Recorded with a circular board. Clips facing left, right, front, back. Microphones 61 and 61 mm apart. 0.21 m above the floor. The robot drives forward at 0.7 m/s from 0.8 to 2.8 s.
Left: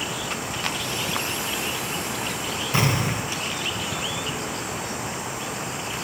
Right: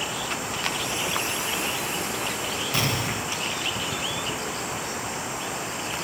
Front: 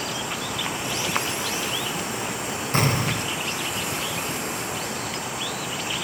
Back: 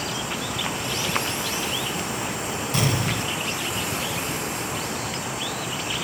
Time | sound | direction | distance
2.7 | an explosion | 30° left | 0.8 m